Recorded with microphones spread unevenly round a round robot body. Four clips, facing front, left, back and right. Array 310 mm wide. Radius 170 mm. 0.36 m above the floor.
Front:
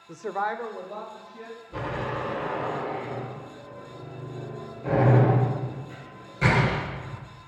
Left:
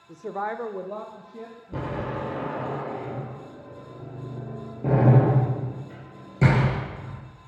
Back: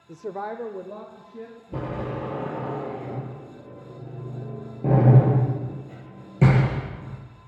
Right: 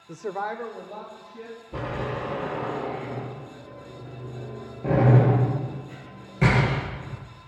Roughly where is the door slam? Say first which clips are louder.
Even, even; behind left.